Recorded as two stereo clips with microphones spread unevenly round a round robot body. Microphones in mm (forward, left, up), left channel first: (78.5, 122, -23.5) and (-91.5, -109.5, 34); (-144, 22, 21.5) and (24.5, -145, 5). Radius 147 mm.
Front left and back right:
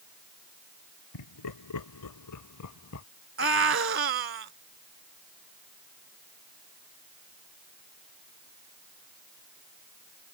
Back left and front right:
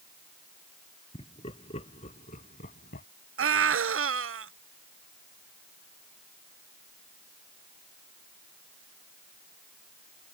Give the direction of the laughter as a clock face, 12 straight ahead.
10 o'clock.